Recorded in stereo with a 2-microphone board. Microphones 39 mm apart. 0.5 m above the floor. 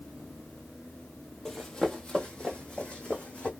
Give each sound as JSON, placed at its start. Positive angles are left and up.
{"t": 1.4, "sound": "running footsteps", "side_deg": 10, "distance_m": 0.9}